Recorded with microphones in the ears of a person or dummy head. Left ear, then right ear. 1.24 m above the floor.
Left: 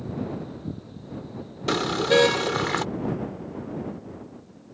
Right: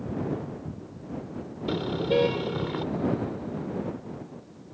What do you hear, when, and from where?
1.7 s a car horn: 60° left (ahead or behind)